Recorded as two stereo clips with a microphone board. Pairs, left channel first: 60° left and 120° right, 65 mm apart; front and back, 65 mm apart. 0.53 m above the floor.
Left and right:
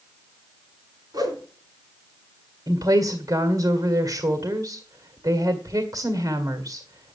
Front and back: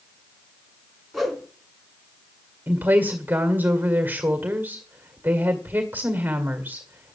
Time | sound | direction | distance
1.1 | a whoosh | 95° right | 4 m
2.7 | a woman speaking | 120° right | 1.9 m